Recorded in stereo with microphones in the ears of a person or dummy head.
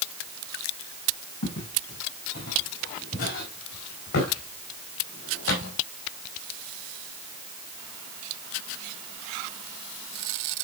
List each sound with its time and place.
1.4 s footsteps: 55° left (ahead or behind), 6.5 m; by 5.8 s 65° left (ahead or behind), 3.5 m